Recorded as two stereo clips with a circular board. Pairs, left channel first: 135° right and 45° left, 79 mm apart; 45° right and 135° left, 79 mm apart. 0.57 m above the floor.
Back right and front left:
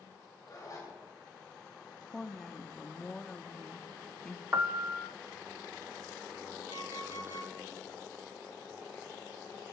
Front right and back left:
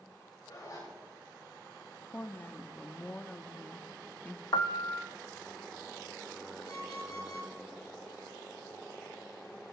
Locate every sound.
0.5 s a zipper: 90° right, 7 m
2.1 s a woman speaking: 60° right, 0.7 m
4.5 s a piano: 15° right, 0.6 m
6.7 s an alarm clock: 10° right, 7.5 m